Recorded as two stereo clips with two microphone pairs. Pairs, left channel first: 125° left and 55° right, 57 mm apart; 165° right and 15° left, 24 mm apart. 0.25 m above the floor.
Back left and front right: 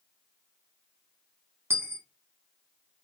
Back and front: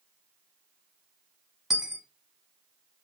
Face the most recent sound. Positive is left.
turn(degrees=-60)